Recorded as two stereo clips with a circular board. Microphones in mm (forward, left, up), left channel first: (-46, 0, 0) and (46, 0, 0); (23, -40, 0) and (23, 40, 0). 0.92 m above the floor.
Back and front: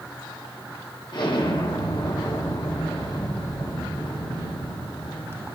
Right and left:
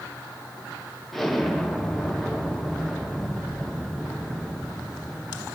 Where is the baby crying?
No baby crying in this recording.